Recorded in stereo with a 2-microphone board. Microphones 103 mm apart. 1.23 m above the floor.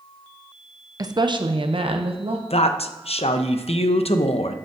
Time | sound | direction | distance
1.0 | a woman speaking | 35° right (ahead or behind) | 0.7 m
2.5 | a woman speaking | 80° left | 0.8 m